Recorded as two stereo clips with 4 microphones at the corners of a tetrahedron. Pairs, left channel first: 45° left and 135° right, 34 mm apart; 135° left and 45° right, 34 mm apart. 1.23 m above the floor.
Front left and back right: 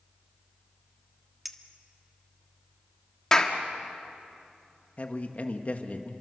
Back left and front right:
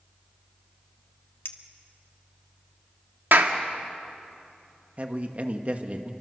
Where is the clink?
135° left, 1.4 m.